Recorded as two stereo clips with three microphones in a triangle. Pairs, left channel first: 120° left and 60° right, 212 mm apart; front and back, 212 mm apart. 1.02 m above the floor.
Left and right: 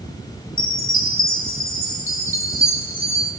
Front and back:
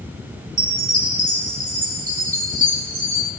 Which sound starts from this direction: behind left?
A chime, at 0.6 s.